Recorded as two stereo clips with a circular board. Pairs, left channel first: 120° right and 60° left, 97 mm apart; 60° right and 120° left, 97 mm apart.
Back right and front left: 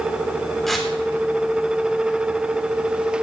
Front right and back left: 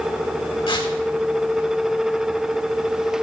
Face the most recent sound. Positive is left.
turn(degrees=-35)